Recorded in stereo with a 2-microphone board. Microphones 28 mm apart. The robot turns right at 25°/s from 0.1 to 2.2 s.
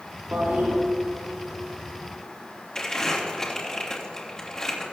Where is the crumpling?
25° left (ahead or behind), 3 m.